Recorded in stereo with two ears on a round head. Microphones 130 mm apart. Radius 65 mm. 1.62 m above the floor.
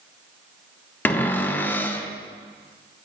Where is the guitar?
I don't hear a guitar.